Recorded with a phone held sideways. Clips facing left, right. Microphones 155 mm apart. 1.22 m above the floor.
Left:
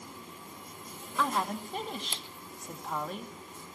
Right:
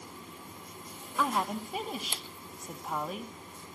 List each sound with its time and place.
1.2 s a woman speaking: 5° right (ahead or behind), 2.5 m